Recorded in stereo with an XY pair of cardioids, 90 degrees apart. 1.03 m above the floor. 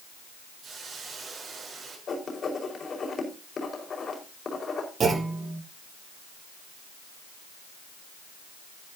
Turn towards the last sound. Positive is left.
turn(degrees=-50)